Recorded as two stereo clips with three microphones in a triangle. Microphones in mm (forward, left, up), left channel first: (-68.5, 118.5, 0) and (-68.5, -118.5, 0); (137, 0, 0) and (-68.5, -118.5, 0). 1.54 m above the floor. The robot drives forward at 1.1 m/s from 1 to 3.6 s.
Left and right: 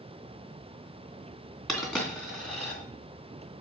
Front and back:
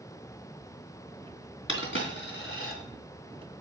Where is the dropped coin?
5° left, 3 m.